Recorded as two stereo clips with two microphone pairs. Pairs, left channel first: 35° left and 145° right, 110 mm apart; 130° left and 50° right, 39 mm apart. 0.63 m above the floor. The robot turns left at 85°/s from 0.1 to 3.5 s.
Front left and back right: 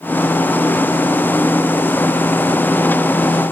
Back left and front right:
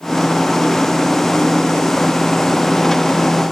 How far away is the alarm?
I don't hear an alarm.